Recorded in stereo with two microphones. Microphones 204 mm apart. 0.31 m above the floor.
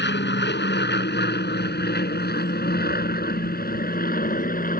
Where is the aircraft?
60° left (ahead or behind); by 4.8 s 45° left (ahead or behind).